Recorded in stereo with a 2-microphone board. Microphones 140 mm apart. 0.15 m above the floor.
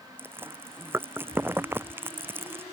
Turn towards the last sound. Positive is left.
turn(degrees=-15)  # may be behind; listen again after turning